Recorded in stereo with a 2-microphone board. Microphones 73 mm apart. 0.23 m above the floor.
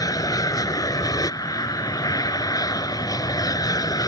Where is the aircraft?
55° left (ahead or behind); by 4.1 s 60° left (ahead or behind).